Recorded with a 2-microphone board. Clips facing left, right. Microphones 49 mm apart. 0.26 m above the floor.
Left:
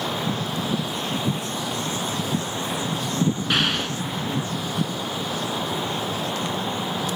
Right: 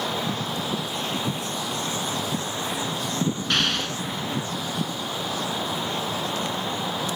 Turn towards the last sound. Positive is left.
turn(degrees=10)  # may be behind; listen again after turning